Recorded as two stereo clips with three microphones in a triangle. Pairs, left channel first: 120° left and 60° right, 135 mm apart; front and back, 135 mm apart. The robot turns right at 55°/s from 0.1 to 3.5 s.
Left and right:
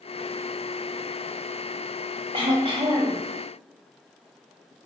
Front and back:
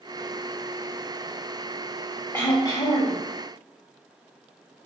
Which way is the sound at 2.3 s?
65° right.